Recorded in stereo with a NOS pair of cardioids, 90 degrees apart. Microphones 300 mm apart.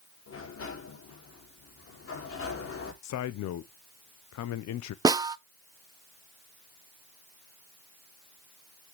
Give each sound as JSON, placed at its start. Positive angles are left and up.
{"t": 0.3, "sound": "a sliding door", "azimuth_deg": 50, "distance_m": 3.0}
{"t": 3.0, "sound": "a man speaking", "azimuth_deg": 65, "distance_m": 0.9}
{"t": 5.0, "sound": "a snare drum", "azimuth_deg": -15, "distance_m": 0.6}